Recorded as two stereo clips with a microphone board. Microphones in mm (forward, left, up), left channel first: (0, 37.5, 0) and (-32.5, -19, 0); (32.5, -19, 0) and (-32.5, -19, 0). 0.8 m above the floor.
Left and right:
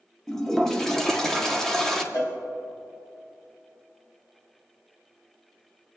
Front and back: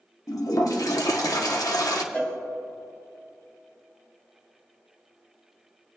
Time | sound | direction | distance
0.3 | a toilet flushing | 25° right | 1.1 m
2.1 | a cowbell | 65° left | 2 m